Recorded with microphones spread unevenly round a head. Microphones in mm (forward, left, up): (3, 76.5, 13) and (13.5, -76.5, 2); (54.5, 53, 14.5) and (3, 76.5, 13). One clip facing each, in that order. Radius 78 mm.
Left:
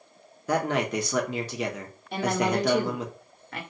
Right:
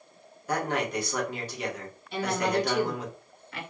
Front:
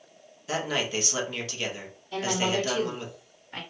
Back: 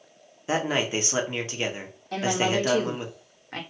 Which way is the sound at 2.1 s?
140° left.